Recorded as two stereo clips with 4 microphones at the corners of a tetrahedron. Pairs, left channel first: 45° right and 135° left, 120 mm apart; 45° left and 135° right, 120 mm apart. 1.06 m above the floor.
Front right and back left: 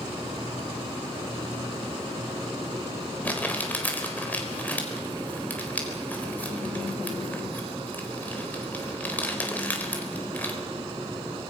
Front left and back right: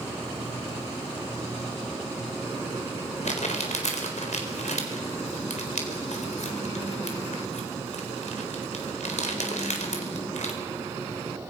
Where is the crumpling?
30° left, 4 m.